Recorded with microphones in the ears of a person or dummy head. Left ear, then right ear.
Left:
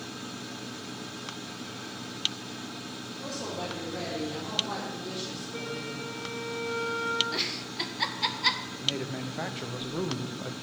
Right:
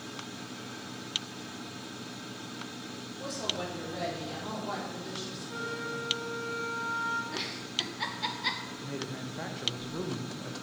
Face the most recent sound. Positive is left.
turn(degrees=20)  # may be behind; listen again after turning